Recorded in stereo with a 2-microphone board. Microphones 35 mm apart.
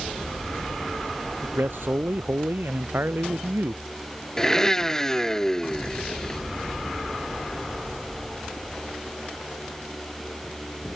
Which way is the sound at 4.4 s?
15° left (ahead or behind).